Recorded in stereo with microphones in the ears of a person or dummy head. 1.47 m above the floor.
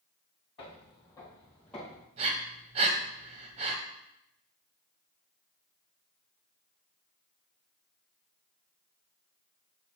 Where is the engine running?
I don't hear an engine running.